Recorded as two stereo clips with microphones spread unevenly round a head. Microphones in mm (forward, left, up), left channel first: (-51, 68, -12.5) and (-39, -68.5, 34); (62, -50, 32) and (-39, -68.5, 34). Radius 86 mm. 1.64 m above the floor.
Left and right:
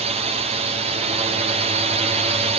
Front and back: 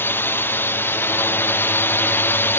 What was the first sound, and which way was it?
A drone, 35° right.